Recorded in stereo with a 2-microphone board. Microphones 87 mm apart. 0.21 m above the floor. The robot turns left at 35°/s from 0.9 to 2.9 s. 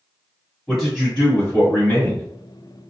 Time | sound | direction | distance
0.7 | a man speaking | 5° left (ahead or behind) | 1.3 m